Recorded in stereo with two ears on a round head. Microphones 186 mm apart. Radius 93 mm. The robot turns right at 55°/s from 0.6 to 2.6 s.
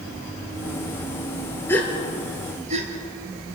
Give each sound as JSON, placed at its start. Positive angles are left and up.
{"t": 1.7, "sound": "a gasp", "side_deg": 15, "distance_m": 2.5}